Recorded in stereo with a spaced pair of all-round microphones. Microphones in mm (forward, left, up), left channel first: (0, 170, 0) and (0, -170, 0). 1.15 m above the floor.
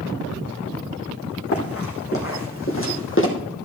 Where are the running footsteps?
40° left (ahead or behind), 4 m; by 3.3 s 35° left (ahead or behind), 3 m.